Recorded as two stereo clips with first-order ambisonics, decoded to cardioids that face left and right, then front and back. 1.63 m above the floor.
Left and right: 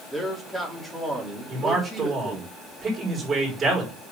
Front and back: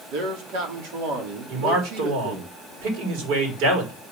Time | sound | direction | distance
0.1 | a man speaking | 175° left | 3 m
1.5 | a man speaking | 165° right | 5 m